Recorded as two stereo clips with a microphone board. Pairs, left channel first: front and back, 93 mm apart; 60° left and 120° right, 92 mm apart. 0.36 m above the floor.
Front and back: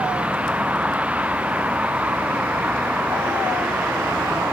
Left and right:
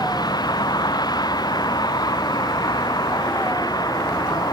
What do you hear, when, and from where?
0.0 s a vehicle: 105° left